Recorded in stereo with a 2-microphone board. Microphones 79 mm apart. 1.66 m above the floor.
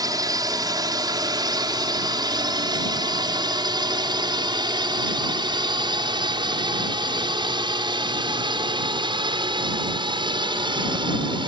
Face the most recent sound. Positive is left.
turn(degrees=-85)